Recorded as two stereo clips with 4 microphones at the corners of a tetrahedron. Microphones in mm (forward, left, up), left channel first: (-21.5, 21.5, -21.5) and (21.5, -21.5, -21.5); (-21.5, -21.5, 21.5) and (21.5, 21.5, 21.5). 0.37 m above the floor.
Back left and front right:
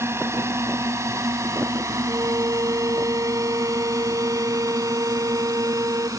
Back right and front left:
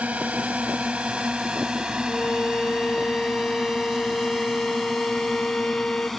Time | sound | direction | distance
0.0 | a drone | 15° right | ?
2.1 | a violin | 65° right | ?